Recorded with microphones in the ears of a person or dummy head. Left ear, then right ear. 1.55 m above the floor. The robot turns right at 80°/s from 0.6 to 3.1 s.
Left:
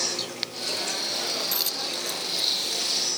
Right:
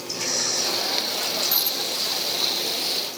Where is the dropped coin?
15° left (ahead or behind); by 2.8 s 50° left (ahead or behind).